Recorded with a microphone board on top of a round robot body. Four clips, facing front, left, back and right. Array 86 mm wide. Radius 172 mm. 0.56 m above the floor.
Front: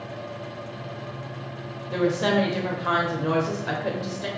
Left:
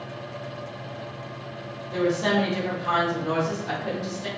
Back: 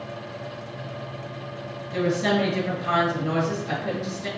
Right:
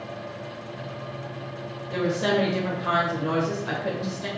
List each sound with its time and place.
1.9 s a woman speaking: 25° right, 3.5 m